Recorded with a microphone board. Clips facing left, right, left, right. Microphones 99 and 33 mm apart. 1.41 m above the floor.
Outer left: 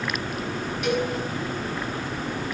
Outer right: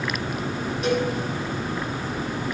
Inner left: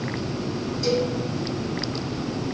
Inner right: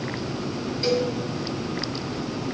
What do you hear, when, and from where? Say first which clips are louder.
0.8 s a cowbell: outer right 2 dB, even; 35° right (ahead or behind), 3 m